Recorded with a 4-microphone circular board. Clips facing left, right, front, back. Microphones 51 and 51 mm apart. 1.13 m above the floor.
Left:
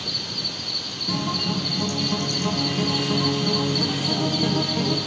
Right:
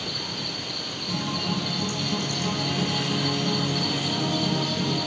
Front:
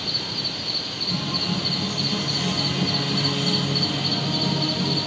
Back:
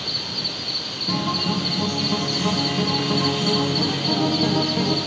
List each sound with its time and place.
0.0 s an insect: 85° right, 1.1 m
1.1 s a guitar: 150° left, 1.4 m